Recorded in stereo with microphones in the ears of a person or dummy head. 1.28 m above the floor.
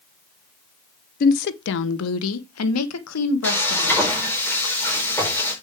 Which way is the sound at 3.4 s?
10° left (ahead or behind).